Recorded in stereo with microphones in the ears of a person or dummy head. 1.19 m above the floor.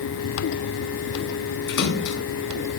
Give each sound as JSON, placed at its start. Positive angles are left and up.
{"t": 1.7, "sound": "a splash", "side_deg": 70, "distance_m": 3.5}